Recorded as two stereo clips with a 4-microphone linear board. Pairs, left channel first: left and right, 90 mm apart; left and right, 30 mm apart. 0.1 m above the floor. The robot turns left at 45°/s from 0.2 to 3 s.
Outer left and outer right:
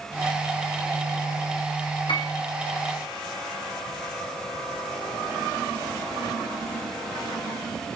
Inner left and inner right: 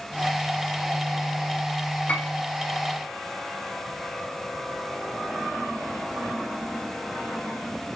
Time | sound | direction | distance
2.1 | a piano | 70° left (ahead or behind) | 3 m